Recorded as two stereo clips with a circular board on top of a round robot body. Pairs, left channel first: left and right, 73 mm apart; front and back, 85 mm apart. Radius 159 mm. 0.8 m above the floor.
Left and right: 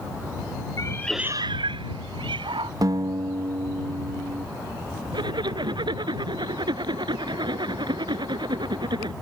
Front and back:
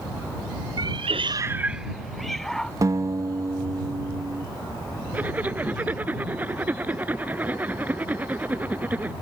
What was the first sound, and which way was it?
A cat meowing, 135° left.